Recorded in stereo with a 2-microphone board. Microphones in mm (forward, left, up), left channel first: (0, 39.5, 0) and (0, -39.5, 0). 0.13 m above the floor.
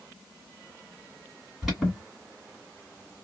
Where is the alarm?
5° right (ahead or behind), 2.0 m.